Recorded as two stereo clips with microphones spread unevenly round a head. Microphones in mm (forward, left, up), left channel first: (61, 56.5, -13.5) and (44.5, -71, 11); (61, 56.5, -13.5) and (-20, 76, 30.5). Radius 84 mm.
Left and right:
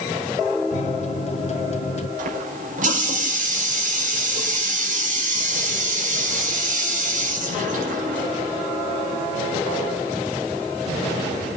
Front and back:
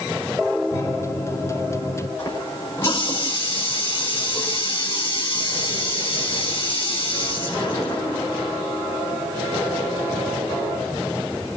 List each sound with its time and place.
0.7 s a microwave: 50° left, 1.6 m
2.2 s a running tap: 95° right, 5 m